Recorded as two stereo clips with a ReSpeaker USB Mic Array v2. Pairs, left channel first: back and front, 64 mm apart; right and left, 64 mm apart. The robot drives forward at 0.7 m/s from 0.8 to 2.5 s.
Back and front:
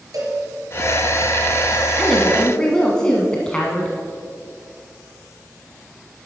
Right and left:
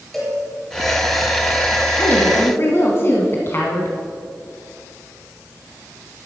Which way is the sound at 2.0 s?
85° right.